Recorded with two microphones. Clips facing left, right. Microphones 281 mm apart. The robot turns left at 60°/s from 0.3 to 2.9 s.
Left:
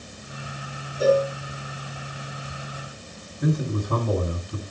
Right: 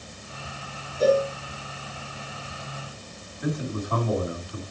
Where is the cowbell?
10° left (ahead or behind), 2.5 m; by 1.2 s 5° right (ahead or behind), 2.5 m.